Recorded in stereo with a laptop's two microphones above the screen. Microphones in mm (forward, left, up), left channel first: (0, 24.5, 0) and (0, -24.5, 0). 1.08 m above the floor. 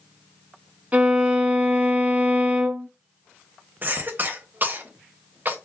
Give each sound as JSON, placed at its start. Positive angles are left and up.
{"t": 0.9, "sound": "a violin", "side_deg": -30, "distance_m": 1.2}
{"t": 3.8, "sound": "a cough", "side_deg": -40, "distance_m": 0.9}